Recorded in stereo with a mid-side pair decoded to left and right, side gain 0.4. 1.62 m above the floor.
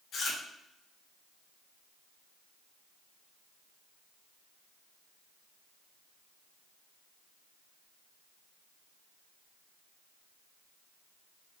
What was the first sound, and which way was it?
Chewing, 70° left.